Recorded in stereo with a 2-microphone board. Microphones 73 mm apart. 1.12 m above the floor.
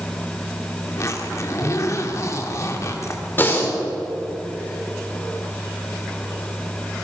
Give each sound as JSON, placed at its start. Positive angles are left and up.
{"t": 0.9, "sound": "a zipper", "side_deg": 45, "distance_m": 2.5}
{"t": 3.4, "sound": "breathing", "side_deg": 30, "distance_m": 4.0}